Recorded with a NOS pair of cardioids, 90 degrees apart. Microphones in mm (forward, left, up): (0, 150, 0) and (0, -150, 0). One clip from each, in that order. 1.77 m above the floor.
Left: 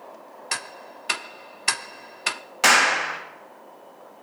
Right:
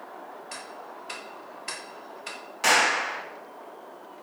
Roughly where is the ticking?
Ahead left.